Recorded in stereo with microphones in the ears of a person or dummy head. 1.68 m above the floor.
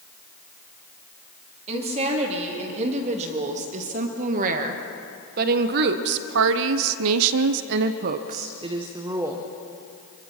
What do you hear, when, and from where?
1.7 s a woman speaking: 30° right (ahead or behind), 3.5 m; by 9.5 s 15° right (ahead or behind), 1.3 m